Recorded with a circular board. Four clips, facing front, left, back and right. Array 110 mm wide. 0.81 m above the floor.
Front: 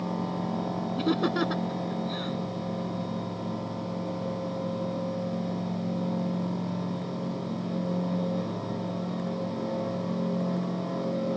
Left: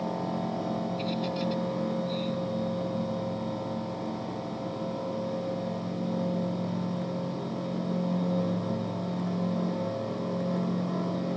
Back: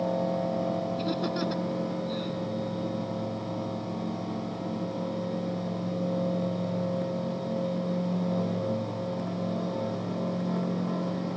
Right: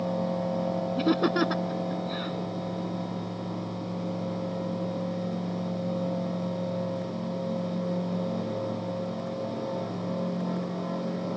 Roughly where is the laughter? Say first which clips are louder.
Right 7 dB, front 3 dB; ahead right.